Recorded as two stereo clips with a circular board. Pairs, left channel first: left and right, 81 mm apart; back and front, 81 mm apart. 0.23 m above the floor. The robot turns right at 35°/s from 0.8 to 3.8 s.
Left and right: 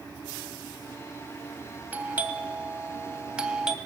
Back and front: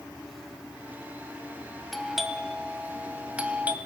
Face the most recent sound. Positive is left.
turn(degrees=-25)